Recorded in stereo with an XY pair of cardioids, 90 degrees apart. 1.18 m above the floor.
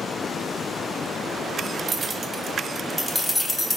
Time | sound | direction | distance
1.9 | keys jangling | 45° right | 0.9 m